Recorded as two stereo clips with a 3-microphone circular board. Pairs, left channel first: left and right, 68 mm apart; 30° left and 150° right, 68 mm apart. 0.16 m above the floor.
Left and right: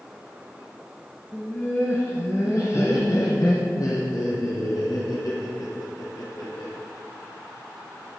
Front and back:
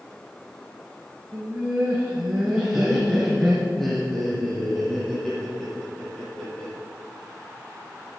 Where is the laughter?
160° left, 1.9 m; by 6.7 s 105° left, 4 m.